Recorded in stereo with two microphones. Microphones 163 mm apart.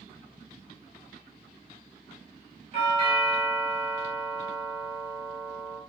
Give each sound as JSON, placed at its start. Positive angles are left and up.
{"t": 2.7, "sound": "a doorbell", "side_deg": -40, "distance_m": 4.0}